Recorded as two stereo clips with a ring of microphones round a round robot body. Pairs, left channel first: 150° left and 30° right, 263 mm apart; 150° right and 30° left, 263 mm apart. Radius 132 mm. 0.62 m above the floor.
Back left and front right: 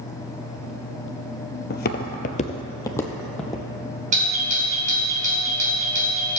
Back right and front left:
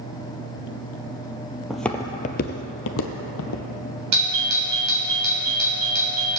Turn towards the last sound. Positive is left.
turn(degrees=25)